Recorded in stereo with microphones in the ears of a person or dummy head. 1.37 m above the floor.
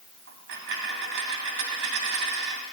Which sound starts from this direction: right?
A dropped coin, at 0.3 s.